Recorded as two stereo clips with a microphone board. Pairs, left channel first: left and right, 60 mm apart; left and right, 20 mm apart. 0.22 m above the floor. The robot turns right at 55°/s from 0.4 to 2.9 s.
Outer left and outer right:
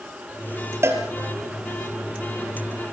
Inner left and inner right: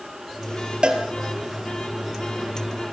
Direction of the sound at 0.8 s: 45° right (ahead or behind).